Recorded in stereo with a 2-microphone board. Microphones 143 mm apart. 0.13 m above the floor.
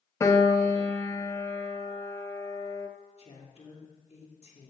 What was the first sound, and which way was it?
A piano, 25° left (ahead or behind).